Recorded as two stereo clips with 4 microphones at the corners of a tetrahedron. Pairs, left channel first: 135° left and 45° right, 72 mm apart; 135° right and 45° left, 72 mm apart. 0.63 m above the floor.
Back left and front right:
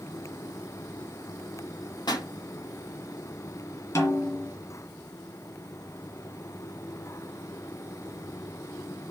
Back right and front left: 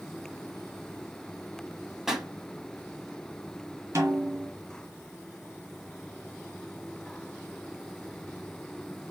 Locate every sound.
2.1 s a pop: 130° left, 1.0 m
4.0 s a snare drum: 95° left, 2.0 m